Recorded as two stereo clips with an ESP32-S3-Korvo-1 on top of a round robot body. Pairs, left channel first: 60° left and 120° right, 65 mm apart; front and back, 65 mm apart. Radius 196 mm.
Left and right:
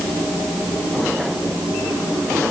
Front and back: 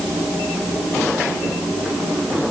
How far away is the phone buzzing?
I don't hear a phone buzzing.